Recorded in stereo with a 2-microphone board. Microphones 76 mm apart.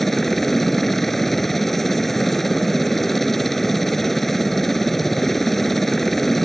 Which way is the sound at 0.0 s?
5° left (ahead or behind).